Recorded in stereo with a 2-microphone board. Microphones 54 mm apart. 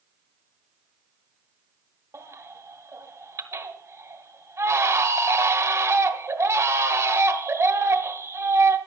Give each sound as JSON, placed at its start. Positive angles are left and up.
{"t": 2.1, "sound": "a baby crying", "side_deg": -65, "distance_m": 1.5}